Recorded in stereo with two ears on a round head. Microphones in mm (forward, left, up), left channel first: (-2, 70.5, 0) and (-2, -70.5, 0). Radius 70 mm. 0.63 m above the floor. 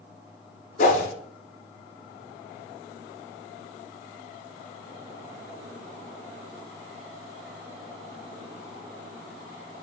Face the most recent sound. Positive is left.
turn(degrees=55)  # may be behind; listen again after turning